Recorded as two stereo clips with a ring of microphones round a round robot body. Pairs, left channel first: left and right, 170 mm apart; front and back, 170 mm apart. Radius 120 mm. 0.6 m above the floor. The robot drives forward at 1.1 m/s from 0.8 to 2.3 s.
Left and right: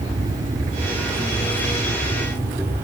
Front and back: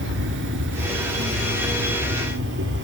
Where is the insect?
165° right, 3.5 m; by 2.9 s 170° right, 5.5 m.